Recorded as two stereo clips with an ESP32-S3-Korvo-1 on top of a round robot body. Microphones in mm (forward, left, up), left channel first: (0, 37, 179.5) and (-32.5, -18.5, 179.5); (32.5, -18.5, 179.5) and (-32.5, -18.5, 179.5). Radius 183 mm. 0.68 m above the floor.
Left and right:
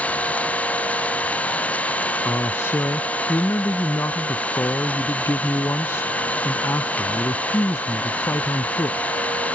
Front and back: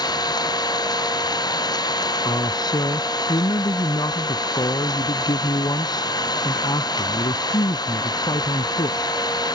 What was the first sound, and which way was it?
An engine running, 10° right.